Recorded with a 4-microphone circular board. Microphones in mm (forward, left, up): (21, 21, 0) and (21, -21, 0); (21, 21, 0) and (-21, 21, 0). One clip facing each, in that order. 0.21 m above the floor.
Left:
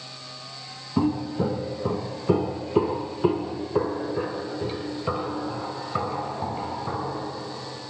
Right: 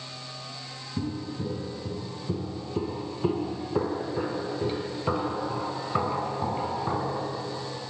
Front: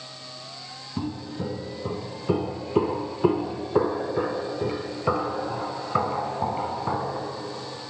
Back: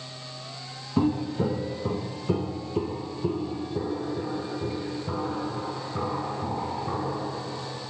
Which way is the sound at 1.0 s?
120° left.